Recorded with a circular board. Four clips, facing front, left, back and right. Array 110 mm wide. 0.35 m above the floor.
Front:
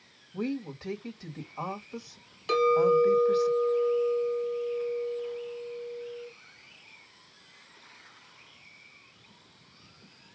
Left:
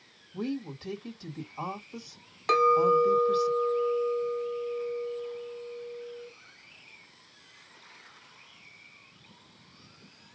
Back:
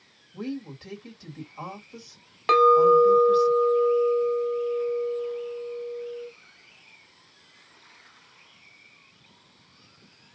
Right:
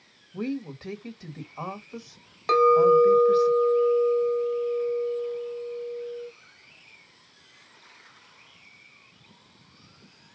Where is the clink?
175° right, 1.2 m.